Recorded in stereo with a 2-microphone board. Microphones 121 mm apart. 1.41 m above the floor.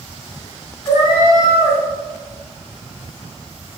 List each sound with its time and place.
0.8 s a cat meowing: 40° left (ahead or behind), 1.2 m